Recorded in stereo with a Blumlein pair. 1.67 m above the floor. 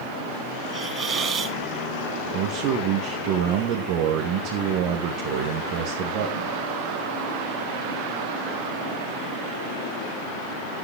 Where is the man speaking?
40° right, 2.5 m.